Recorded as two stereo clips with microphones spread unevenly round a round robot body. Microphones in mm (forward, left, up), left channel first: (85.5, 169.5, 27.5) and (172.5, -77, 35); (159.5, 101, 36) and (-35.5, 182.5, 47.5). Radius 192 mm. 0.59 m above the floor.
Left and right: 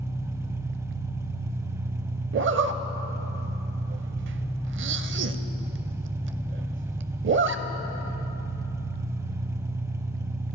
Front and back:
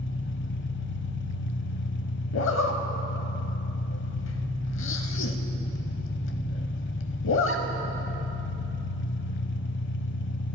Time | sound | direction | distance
0.0 | an engine running | 10° left | 0.8 m
2.3 | a zipper | 35° right | 0.5 m